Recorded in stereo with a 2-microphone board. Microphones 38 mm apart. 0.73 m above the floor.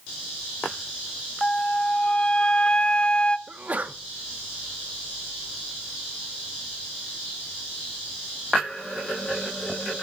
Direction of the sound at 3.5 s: 40° right (ahead or behind).